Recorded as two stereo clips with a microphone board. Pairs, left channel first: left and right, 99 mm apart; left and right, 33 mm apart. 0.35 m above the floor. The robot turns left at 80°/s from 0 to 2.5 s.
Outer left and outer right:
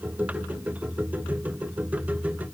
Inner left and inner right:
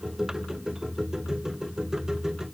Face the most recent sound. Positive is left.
No sound to turn to.